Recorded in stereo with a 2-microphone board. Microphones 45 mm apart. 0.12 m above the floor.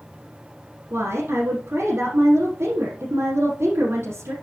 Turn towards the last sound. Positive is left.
turn(degrees=-70)  # may be behind; listen again after turning